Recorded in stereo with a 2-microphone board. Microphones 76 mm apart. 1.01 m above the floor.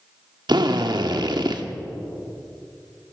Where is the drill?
80° right, 1.6 m.